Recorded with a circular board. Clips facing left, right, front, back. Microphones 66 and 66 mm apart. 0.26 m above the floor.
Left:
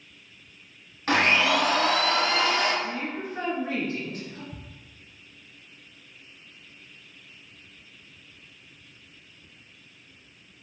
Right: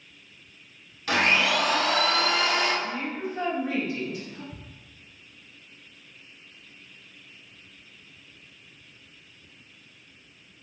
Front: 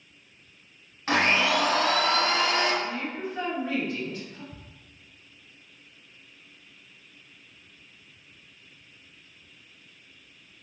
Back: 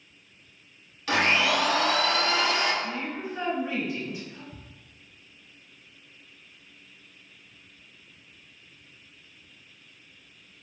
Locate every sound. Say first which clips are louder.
1.1 s a blender: left 1 dB, even; 45° left, 1.0 m
2.8 s a woman speaking: right 1 dB, front 1 dB; 110° left, 1.3 m
4.5 s ticking: left 1 dB, even; 5° right, 1.7 m